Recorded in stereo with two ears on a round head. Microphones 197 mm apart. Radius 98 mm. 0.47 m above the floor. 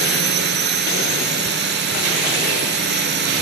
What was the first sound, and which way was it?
A drone, 50° right (ahead or behind).